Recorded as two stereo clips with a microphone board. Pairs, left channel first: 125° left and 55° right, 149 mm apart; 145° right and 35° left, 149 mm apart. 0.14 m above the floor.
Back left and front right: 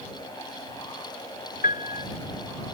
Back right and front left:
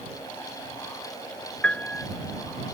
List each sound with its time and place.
1.6 s a piano: 135° left